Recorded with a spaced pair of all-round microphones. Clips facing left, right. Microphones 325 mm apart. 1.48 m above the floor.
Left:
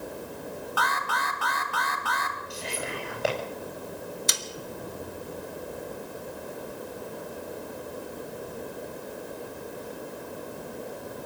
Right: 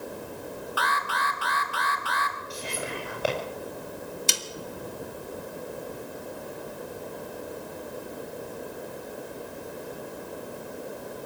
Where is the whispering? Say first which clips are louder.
Even; 5° right (ahead or behind), 8.5 m.